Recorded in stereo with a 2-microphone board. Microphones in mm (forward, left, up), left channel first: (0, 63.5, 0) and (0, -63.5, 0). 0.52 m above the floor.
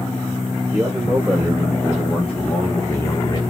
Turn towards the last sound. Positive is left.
turn(degrees=35)  # may be behind; listen again after turning